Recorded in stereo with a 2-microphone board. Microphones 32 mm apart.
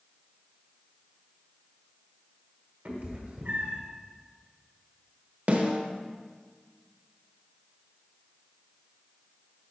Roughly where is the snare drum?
Right.